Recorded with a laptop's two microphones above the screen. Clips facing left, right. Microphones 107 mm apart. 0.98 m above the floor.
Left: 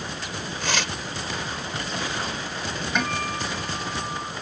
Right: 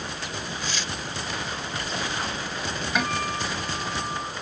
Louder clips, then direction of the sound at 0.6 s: Left 4 dB; 85° left.